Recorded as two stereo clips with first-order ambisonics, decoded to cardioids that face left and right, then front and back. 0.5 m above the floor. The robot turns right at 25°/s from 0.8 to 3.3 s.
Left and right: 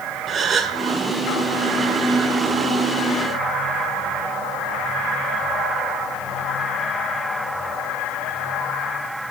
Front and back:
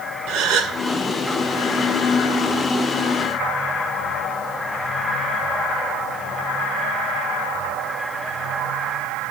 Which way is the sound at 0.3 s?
155° right.